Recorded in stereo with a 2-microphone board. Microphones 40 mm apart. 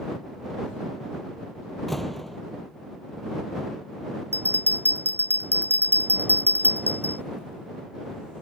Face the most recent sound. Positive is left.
turn(degrees=-65)  # may be behind; listen again after turning